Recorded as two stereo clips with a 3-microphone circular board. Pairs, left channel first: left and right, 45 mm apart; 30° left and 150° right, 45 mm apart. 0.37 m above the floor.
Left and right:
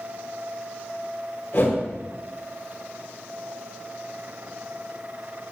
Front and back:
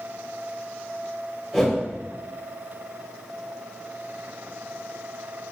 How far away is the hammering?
I don't hear hammering.